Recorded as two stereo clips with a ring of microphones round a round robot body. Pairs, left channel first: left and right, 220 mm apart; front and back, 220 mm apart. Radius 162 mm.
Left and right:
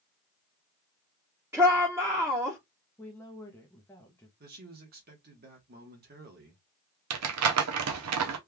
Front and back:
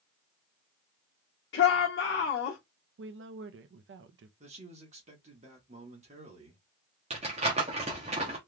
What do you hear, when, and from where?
1.5 s a shout: 10° right, 1.3 m
3.0 s a woman speaking: 170° left, 0.7 m
4.4 s a man speaking: 125° right, 1.1 m
7.1 s crumpling: 110° right, 0.6 m